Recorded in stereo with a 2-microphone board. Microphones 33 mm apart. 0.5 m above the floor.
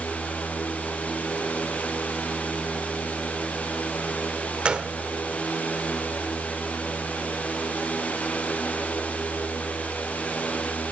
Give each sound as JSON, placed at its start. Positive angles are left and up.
{"t": 4.7, "sound": "a gunshot", "side_deg": -35, "distance_m": 0.5}